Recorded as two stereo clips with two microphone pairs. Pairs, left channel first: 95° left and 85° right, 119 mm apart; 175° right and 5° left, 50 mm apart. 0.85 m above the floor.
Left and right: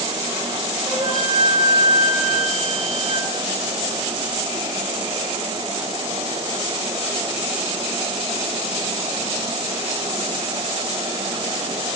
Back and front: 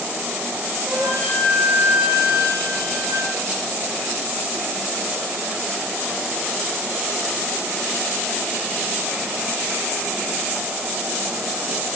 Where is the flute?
50° right, 10 m.